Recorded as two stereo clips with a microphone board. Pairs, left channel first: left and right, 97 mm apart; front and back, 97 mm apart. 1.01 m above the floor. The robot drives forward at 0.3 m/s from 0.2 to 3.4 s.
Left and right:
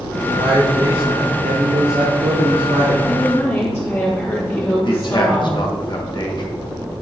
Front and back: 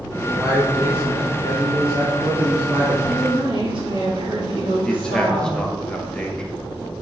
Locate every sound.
0.2 s a man speaking: 95° right, 1.9 m; by 3.0 s 120° right, 2 m
3.0 s a woman speaking: 150° left, 1.9 m; by 5.6 s 155° left, 2.0 m
4.8 s a man speaking: 80° left, 1.1 m